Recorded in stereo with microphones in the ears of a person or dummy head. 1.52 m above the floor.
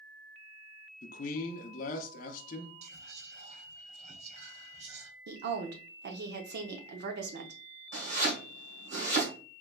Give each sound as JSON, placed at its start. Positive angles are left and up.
{"t": 1.0, "sound": "a man speaking", "side_deg": 55, "distance_m": 0.6}
{"t": 2.8, "sound": "whispering", "side_deg": -35, "distance_m": 1.0}
{"t": 5.3, "sound": "a woman speaking", "side_deg": -60, "distance_m": 0.7}
{"t": 7.9, "sound": "chopping", "side_deg": -65, "distance_m": 1.6}